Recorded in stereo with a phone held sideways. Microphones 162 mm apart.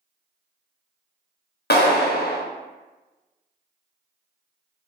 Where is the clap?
75° left (ahead or behind), 0.6 m.